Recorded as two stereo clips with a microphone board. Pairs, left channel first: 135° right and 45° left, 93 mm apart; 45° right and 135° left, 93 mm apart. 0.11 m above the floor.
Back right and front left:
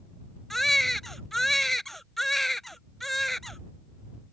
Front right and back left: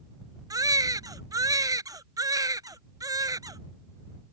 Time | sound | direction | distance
0.5 | a baby crying | 140° left | ?